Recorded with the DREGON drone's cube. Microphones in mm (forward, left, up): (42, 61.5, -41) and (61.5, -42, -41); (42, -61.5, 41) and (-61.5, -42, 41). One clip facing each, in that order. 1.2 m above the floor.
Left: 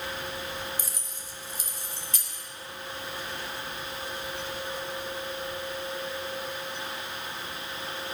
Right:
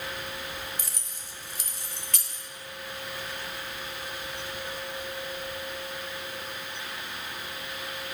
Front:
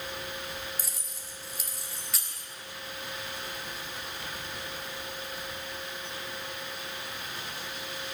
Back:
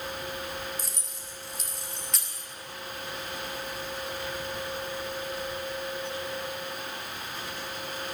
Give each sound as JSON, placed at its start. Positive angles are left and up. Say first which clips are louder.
{"t": 0.8, "sound": "keys jangling", "louder": "left 2 dB, back 3 dB", "azimuth_deg": -95, "distance_m": 1.7}